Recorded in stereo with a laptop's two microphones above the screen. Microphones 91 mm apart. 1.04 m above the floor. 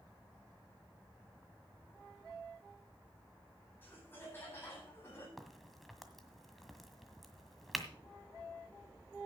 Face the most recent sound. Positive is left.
turn(degrees=0)  # may be behind; listen again after turning